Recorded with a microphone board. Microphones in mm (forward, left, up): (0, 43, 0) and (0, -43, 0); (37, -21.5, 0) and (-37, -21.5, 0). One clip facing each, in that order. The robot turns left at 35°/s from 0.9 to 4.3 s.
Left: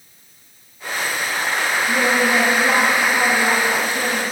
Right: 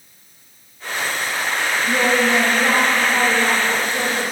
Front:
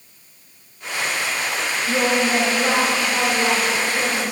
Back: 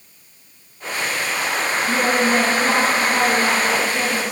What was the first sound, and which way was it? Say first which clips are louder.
A woman speaking: right 1 dB, even; 35° right.